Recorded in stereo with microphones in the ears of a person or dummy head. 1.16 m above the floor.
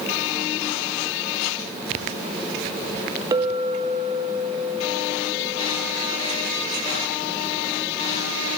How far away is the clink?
About 0.8 m.